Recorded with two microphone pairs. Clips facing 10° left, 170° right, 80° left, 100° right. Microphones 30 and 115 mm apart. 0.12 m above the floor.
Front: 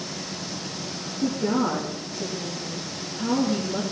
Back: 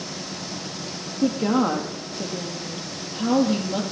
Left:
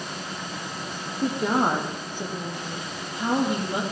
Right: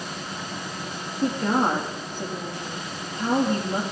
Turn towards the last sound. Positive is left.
turn(degrees=160)